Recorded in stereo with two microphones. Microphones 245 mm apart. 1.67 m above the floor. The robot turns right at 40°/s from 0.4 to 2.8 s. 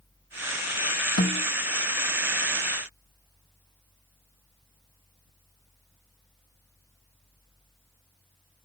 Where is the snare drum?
65° left (ahead or behind), 1.5 m; by 1.4 s 55° left (ahead or behind), 1.5 m.